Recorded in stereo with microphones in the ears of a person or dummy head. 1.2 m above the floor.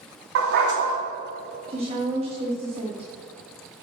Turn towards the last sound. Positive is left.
turn(degrees=-35)  # may be behind; listen again after turning